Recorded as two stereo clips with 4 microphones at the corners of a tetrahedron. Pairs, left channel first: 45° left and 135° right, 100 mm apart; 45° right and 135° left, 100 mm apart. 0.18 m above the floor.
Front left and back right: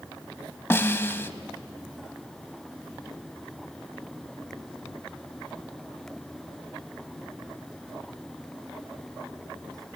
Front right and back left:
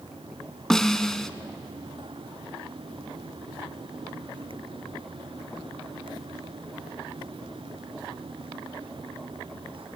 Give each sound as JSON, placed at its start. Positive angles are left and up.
{"t": 0.7, "sound": "a snare drum", "azimuth_deg": 30, "distance_m": 0.9}